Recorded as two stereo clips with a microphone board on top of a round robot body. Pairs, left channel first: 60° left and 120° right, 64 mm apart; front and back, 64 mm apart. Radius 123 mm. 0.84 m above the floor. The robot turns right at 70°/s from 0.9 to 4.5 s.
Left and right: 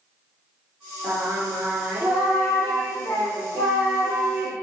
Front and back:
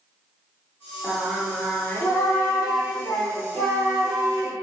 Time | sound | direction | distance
1.0 | singing | 110° right | 3 m